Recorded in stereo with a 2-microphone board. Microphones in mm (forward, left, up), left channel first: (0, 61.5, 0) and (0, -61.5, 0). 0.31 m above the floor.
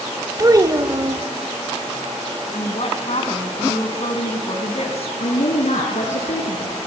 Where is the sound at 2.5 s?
60° left (ahead or behind), 2.5 m.